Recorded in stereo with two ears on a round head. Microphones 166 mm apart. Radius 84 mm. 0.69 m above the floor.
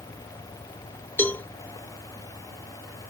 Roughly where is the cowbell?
Centre.